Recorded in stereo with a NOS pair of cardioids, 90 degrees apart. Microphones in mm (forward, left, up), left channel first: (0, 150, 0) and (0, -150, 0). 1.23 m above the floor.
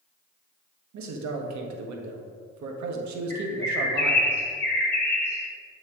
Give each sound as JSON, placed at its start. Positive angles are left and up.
{"t": 0.9, "sound": "a man speaking", "azimuth_deg": -65, "distance_m": 1.3}
{"t": 3.3, "sound": "a bird", "azimuth_deg": 10, "distance_m": 3.0}